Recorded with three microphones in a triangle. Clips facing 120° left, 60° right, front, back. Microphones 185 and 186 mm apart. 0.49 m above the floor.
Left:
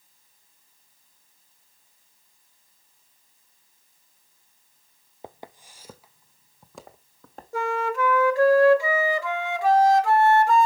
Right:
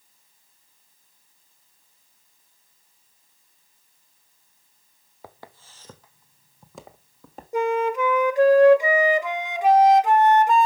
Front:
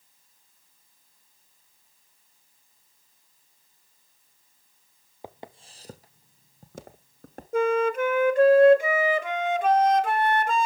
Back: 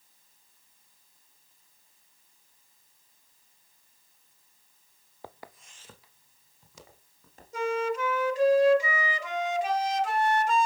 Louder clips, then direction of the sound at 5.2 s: Left 3 dB, front 4 dB; 65° left.